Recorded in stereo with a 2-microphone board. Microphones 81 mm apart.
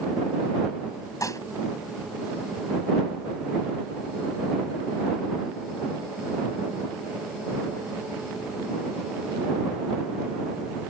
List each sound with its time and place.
1.2 s dishes clattering: 45° left (ahead or behind)